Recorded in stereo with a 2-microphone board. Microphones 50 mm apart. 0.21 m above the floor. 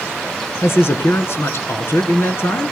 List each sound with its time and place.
0.6 s a man speaking: 55° left (ahead or behind), 2.5 m